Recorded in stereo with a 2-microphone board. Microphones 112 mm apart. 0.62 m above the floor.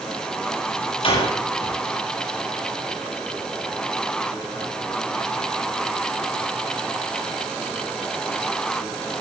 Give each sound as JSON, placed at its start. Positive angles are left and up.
{"t": 1.0, "sound": "a door slam", "side_deg": 55, "distance_m": 9.5}